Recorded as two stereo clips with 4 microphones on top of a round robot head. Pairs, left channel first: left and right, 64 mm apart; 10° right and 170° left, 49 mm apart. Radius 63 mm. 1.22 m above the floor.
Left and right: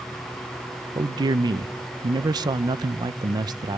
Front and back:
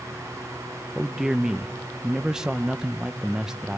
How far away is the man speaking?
About 0.7 m.